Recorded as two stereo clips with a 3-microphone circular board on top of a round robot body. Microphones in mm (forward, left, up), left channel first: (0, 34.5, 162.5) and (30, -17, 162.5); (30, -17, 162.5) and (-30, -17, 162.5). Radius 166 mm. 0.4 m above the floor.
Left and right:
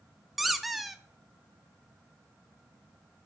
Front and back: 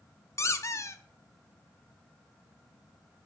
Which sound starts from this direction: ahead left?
A squeak, at 0.4 s.